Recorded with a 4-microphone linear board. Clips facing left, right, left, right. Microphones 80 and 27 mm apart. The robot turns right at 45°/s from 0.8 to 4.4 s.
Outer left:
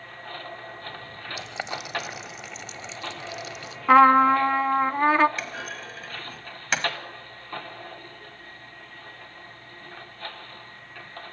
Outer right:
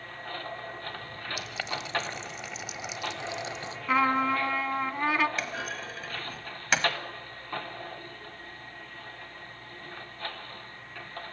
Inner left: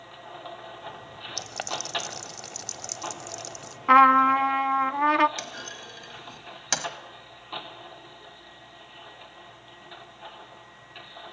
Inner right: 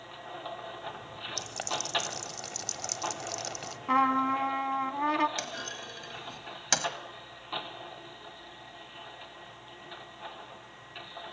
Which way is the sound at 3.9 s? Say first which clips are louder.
Outer left 10 dB, inner left 10 dB; 60° left (ahead or behind).